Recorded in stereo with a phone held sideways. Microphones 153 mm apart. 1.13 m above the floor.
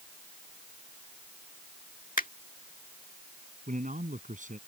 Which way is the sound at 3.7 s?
60° right (ahead or behind).